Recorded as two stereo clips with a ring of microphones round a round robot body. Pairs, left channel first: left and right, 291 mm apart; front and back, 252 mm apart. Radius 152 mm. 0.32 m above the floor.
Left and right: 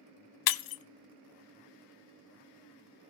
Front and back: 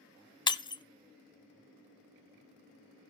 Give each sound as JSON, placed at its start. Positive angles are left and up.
{"t": 0.5, "sound": "breaking glass", "azimuth_deg": 75, "distance_m": 0.6}